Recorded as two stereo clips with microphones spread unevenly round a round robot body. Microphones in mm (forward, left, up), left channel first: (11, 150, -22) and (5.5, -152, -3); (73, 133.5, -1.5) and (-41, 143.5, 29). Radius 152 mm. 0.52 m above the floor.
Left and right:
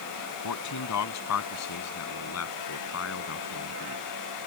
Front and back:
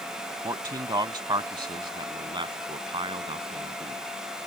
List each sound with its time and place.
0.4 s a man speaking: 120° left; by 4.5 s 140° left